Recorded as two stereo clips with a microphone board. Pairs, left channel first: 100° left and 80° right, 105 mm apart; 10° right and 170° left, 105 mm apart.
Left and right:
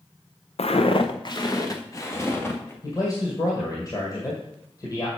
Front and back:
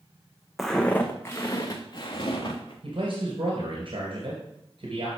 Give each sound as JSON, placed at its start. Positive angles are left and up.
{"t": 0.6, "sound": "footsteps", "azimuth_deg": 80, "distance_m": 0.7}
{"t": 2.8, "sound": "a man speaking", "azimuth_deg": 150, "distance_m": 2.0}